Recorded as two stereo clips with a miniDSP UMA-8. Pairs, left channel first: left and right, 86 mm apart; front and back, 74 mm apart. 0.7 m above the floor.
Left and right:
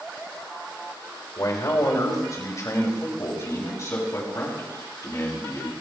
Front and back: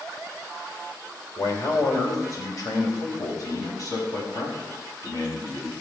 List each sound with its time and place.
1.4 s a man speaking: 45° left, 2.5 m; by 5.7 s 35° left, 6 m